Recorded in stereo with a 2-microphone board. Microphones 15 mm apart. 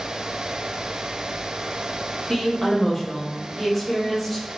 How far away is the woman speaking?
About 1.1 m.